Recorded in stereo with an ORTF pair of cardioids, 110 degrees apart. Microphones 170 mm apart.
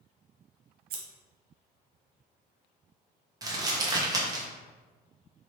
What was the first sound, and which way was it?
Scissors, 65° right.